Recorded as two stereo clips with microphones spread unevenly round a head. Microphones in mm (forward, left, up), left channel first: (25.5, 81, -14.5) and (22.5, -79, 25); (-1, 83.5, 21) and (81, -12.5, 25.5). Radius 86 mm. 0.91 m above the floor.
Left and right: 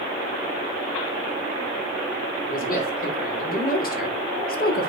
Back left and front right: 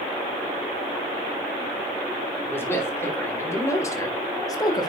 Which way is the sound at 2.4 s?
60° left.